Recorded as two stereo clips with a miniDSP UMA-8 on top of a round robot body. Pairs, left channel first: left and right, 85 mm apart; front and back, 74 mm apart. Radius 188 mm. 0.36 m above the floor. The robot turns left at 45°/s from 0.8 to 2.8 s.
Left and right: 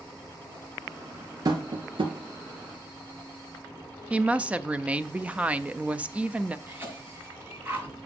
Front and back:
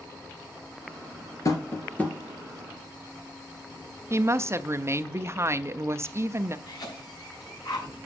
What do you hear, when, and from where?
1.4 s tapping: 50° right, 1.8 m; by 2.1 s 80° right, 1.8 m
4.1 s a woman speaking: 155° right, 0.9 m
6.7 s a cough: 25° right, 5 m